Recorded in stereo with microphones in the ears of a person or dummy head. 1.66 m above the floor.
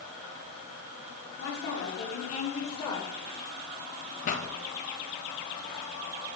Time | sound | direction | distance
1.4 | a woman speaking | 65° left (ahead or behind) | 2 m
4.2 | a pop | 45° left (ahead or behind) | 0.7 m